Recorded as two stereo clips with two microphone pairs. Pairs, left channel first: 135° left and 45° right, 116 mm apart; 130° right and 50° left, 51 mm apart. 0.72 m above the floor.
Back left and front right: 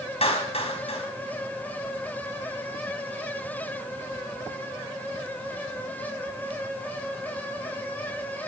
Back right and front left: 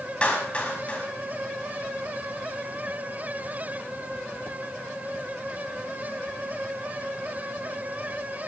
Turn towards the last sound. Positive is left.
turn(degrees=165)